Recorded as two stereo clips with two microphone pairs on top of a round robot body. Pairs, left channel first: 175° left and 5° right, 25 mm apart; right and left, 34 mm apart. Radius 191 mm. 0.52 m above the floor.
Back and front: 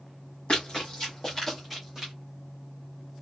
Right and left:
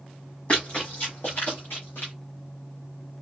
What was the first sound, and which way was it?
Running footsteps, 140° right.